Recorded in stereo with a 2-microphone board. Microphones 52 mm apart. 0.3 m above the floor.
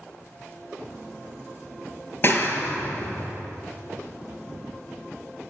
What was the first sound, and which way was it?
A clap, 40° left (ahead or behind).